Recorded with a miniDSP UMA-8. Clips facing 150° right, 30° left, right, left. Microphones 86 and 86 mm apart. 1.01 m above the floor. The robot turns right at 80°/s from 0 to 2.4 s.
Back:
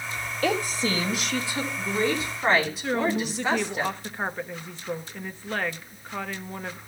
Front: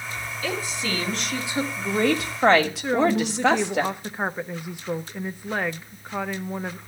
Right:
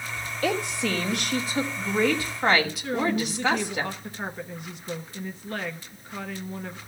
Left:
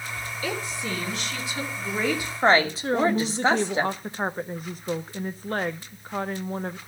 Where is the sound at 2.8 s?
100° left, 0.7 m.